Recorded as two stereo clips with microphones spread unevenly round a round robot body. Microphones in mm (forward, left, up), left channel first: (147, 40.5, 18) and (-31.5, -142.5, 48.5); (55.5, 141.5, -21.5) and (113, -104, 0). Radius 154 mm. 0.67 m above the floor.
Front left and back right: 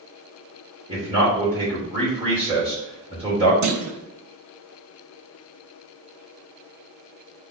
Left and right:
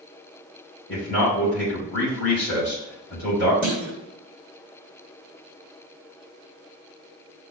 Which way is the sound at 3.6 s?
165° right.